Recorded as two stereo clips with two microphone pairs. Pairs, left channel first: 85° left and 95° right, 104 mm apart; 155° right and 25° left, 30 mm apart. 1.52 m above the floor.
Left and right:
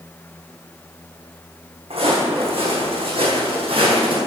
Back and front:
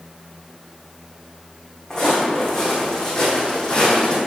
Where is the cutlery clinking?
No cutlery clinking in this recording.